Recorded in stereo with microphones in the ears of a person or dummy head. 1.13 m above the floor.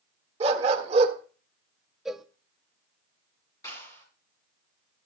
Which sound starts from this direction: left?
A clap, at 3.6 s.